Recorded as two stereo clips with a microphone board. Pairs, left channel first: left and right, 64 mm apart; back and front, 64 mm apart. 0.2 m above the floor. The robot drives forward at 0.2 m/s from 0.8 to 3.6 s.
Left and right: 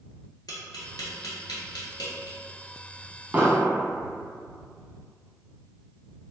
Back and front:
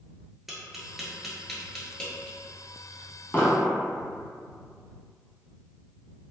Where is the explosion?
140° right, 0.5 m; by 3.7 s 145° right, 0.6 m.